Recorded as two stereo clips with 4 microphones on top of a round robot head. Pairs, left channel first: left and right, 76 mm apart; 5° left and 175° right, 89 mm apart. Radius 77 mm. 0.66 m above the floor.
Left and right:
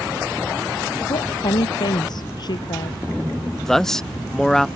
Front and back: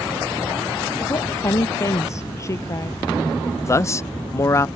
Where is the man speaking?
10° left.